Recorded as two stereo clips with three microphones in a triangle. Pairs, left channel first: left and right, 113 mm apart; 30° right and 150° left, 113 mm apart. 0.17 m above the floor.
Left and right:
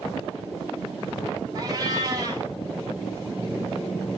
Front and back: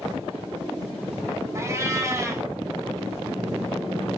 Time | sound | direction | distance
1.6 | a cat meowing | 145° right | 0.9 m